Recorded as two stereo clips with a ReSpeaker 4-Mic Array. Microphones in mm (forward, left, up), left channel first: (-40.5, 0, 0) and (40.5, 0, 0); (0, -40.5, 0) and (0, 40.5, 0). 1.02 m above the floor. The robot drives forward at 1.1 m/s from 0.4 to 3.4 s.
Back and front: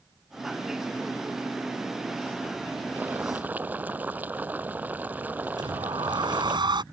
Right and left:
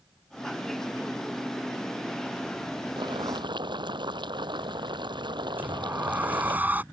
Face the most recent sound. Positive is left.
turn(degrees=20)